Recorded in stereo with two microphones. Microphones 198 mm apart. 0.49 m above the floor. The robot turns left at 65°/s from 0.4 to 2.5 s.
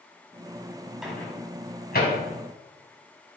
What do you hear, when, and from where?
1.0 s a microwave: 5° right (ahead or behind), 3.5 m; by 2.2 s 65° left (ahead or behind), 3.5 m